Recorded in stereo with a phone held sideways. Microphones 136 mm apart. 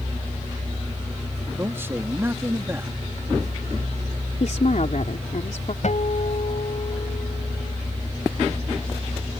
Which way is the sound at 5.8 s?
65° left (ahead or behind).